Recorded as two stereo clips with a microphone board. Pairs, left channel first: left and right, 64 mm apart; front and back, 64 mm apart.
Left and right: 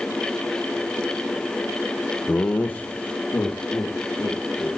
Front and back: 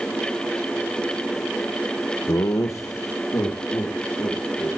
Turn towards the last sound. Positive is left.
turn(degrees=40)